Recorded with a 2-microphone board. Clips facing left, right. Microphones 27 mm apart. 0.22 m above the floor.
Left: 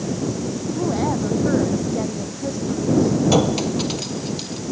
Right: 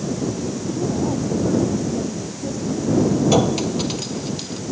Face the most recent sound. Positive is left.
turn(degrees=0)  # may be behind; listen again after turning